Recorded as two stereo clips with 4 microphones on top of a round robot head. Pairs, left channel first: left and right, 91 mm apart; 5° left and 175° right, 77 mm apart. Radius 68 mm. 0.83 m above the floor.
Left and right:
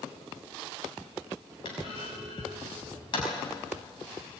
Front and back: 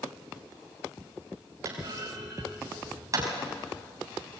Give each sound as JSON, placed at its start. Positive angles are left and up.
{"t": 1.6, "sound": "a clunk", "azimuth_deg": 140, "distance_m": 5.5}